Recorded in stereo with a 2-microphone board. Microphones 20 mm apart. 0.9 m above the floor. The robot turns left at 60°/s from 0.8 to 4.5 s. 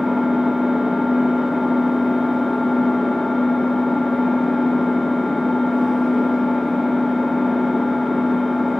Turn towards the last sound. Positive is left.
turn(degrees=45)